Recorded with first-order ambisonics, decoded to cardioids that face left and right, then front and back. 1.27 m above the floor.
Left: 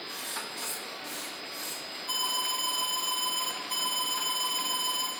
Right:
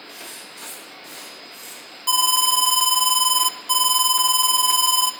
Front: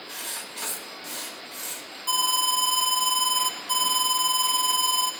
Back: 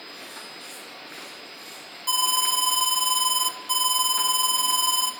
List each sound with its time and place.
0.1 s writing: 5° right, 7.5 m
2.1 s an alarm: 100° right, 3 m